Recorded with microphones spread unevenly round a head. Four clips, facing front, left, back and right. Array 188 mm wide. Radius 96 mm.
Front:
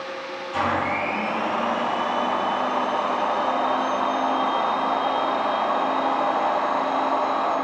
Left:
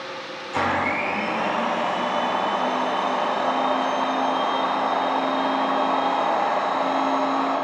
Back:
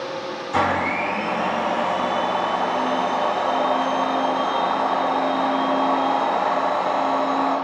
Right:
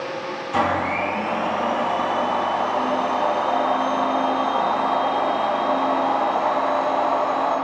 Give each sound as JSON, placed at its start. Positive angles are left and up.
{"t": 0.5, "sound": "a blender", "azimuth_deg": -135, "distance_m": 6.0}